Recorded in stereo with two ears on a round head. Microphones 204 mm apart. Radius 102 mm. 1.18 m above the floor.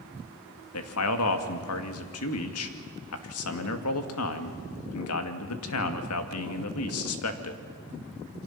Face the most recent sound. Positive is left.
turn(degrees=75)  # may be behind; listen again after turning